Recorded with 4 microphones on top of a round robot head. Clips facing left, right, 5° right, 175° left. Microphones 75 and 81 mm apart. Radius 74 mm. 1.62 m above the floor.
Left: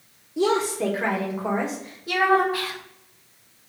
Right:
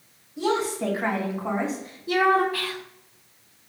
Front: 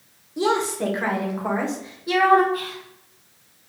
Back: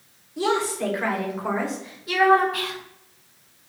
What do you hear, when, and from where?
0.4 s a woman speaking: 65° left, 1.2 m; by 2.4 s 60° left, 2 m
2.5 s whispering: 160° left, 0.8 m